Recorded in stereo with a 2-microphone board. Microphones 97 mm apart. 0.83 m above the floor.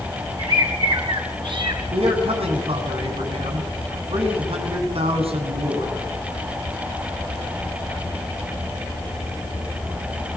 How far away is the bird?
About 4.5 m.